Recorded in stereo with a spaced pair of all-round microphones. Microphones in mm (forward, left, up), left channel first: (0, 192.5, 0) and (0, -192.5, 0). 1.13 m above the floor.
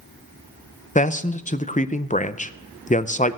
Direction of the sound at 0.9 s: 20° left (ahead or behind).